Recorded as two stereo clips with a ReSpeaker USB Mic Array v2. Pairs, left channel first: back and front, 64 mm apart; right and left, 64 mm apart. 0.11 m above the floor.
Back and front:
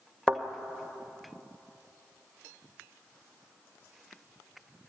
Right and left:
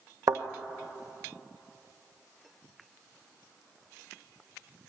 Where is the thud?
100° left, 1.9 m.